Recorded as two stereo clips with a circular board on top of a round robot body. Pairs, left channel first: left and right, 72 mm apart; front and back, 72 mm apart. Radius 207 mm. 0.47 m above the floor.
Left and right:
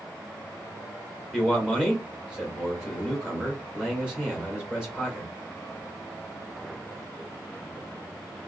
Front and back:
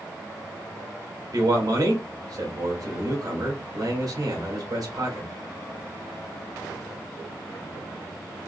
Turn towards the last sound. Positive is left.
turn(degrees=-170)